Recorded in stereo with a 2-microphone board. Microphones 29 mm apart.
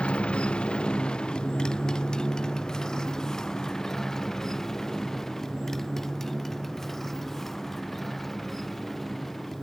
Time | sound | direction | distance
0.0 | a motorcycle | 40° left (ahead or behind) | ?